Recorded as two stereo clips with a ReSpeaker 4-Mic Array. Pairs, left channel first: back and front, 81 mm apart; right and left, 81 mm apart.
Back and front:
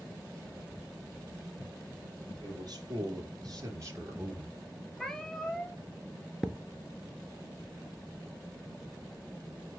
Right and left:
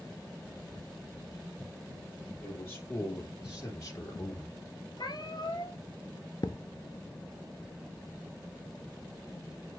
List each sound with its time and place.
2.4 s a man speaking: 30° right, 3.5 m; by 4.6 s 60° right, 2.5 m
5.0 s a cat meowing: 95° right, 1.3 m
6.4 s a thud: 95° right, 0.6 m